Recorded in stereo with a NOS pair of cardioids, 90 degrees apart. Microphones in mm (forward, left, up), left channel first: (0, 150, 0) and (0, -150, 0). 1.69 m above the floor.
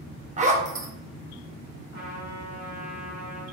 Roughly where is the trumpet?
Ahead right.